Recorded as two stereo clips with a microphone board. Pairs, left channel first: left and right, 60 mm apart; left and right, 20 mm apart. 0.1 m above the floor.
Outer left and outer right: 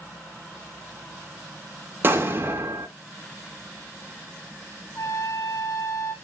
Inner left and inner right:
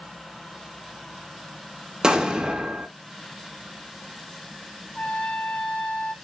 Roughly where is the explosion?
Right.